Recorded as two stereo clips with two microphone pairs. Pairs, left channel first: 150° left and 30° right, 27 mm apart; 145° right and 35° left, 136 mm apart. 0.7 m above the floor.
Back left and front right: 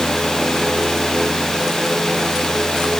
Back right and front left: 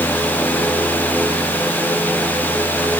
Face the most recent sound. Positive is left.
No sound to turn to.